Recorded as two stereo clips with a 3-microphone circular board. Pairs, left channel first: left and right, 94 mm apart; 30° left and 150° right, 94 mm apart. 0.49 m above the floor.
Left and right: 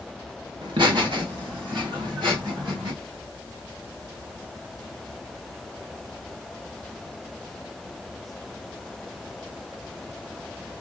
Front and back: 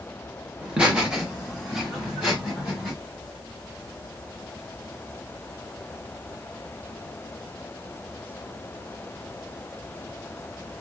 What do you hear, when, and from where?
0.6 s laughter: 75° right, 1.5 m; by 2.9 s 65° right, 3.5 m